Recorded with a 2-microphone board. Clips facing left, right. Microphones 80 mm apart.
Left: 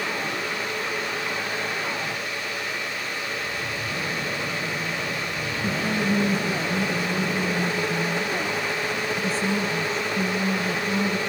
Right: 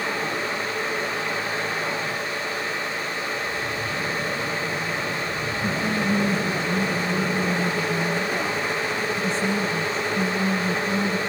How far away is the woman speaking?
About 2.5 m.